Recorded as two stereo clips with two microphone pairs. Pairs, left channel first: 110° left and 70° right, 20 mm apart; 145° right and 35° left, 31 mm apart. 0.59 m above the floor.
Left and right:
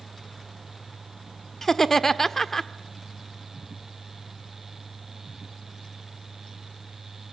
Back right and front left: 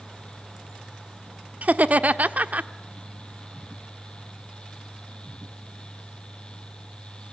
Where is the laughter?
45° left, 1.2 m.